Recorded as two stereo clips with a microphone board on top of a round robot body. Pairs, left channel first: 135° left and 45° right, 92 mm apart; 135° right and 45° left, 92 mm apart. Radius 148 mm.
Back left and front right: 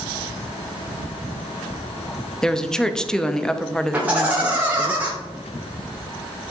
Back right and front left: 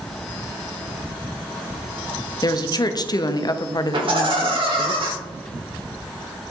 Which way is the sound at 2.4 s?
145° right.